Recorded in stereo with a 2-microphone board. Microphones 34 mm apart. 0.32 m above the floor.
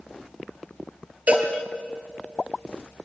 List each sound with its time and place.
1.3 s a cowbell: 45° right (ahead or behind), 3 m